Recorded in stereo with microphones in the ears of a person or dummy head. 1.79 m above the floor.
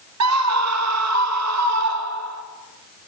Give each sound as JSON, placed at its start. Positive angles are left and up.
{"t": 0.2, "sound": "a scream", "side_deg": -80, "distance_m": 1.5}